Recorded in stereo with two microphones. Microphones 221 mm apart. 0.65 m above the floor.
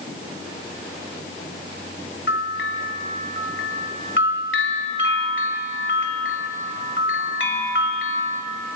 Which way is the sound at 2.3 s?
60° left (ahead or behind).